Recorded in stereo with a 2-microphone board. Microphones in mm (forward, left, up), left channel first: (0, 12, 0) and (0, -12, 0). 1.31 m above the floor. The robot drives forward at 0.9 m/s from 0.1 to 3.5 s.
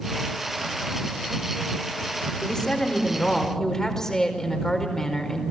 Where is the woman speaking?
25° left (ahead or behind), 3.5 m; by 5.4 s 20° left (ahead or behind), 4.5 m.